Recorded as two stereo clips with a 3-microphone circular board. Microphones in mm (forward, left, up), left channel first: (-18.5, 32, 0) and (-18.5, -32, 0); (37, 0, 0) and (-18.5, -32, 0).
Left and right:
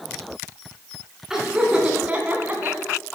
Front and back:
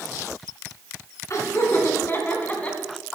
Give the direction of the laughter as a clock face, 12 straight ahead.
12 o'clock.